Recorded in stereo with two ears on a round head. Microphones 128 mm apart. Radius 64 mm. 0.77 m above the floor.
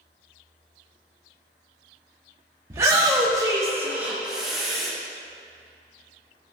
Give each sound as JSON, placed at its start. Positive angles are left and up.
{"t": 2.7, "sound": "a shout", "side_deg": -20, "distance_m": 1.5}